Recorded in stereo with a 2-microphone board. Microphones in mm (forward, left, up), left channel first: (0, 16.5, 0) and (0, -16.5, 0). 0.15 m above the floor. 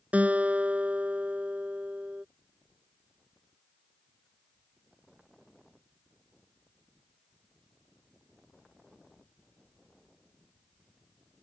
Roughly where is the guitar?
Right.